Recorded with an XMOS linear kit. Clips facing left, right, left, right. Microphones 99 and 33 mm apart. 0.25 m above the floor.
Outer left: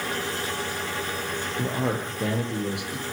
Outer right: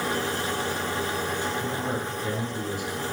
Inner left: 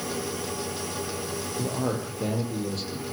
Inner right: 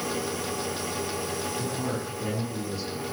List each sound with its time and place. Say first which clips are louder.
1.6 s a man speaking: outer left 2 dB, inner left 2 dB; 75° left (ahead or behind), 9.5 m